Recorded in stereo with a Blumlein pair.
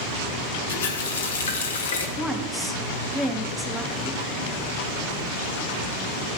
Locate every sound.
0.7 s a running tap: 65° left, 1.6 m
2.2 s a woman speaking: straight ahead, 1.5 m